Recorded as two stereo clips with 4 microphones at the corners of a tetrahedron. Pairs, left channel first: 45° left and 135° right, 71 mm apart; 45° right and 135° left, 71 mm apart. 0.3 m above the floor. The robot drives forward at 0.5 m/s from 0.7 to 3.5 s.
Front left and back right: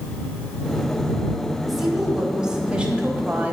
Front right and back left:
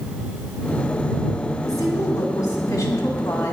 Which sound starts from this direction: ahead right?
A woman speaking, at 1.6 s.